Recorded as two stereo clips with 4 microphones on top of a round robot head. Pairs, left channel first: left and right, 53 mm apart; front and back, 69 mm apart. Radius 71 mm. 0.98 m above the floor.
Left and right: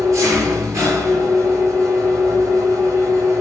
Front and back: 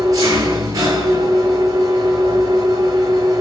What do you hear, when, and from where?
0.0 s an engine running: 130° right, 8 m